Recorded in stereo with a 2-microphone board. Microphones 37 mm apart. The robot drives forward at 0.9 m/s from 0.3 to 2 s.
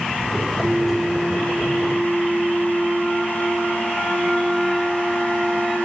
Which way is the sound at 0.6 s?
5° left (ahead or behind).